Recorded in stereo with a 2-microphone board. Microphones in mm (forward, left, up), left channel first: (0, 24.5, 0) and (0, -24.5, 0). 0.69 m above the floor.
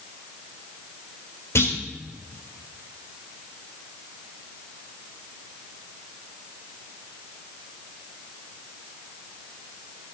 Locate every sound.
1.6 s a clunk: 65° left (ahead or behind), 3 m